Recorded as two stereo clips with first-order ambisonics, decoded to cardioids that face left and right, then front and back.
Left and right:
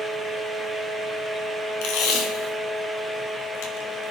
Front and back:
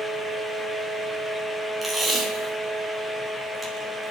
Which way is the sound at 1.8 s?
90° left.